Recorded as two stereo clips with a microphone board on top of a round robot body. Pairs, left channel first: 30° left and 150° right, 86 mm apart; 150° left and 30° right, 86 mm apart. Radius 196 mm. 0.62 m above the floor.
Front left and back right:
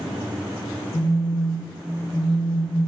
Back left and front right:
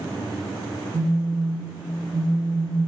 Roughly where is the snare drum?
I don't hear a snare drum.